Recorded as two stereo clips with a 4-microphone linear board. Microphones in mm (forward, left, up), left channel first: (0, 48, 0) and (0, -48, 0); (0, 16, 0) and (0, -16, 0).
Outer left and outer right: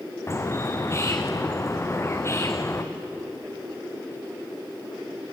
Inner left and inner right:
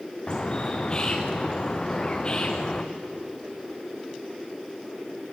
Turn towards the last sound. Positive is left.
turn(degrees=30)  # may be behind; listen again after turning